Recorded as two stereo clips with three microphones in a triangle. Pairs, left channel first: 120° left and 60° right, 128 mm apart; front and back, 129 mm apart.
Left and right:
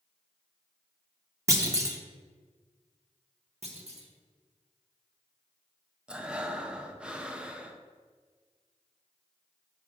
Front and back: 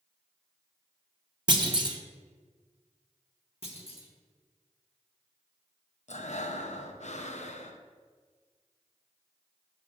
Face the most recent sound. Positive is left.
turn(degrees=25)